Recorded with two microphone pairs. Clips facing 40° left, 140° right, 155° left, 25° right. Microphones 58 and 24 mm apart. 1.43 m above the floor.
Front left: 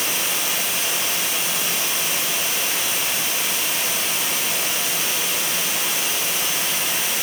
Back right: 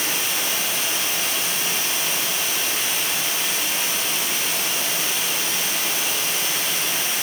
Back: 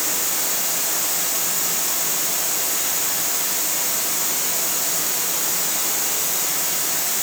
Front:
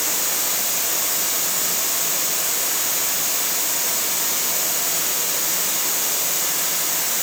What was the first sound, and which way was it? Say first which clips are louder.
Running water: even, front 1 dB; 20° left.